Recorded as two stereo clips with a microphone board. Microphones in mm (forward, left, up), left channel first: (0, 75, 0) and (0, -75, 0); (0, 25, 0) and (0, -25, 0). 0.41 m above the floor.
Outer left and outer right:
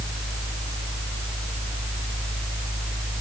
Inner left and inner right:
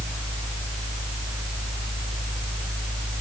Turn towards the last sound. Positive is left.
No sound to turn to.